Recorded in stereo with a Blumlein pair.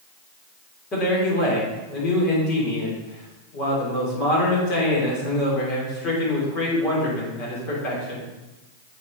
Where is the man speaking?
30° left, 3.5 m.